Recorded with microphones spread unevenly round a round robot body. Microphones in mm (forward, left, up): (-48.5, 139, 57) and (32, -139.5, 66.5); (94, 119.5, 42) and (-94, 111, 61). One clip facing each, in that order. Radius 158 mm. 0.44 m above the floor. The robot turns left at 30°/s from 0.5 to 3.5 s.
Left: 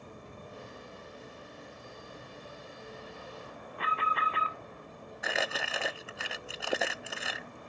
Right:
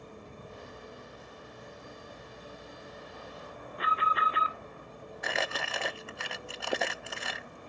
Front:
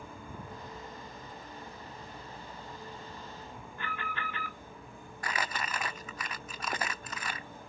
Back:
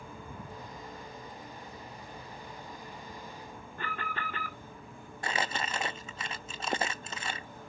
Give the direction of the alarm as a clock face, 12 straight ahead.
5 o'clock.